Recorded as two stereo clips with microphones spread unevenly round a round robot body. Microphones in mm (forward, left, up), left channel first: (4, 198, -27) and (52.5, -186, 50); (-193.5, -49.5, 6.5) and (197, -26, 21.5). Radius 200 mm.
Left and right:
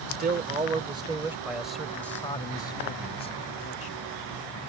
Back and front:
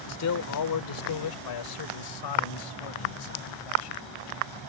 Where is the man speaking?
150° right; by 4.6 s 160° left.